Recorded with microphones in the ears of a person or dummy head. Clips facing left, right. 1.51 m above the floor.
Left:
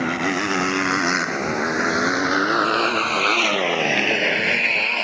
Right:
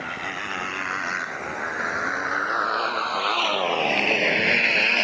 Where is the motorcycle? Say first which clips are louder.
Left 12 dB; 65° left (ahead or behind); by 5.0 s 25° right (ahead or behind).